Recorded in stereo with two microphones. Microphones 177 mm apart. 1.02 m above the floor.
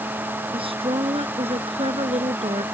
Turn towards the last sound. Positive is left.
turn(degrees=-35)  # may be behind; listen again after turning